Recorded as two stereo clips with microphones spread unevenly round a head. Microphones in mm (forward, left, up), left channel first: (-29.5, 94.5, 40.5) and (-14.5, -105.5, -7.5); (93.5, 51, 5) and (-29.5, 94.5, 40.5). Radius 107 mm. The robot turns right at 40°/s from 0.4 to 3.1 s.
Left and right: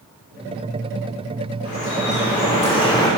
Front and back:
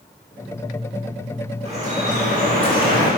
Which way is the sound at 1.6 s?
115° left.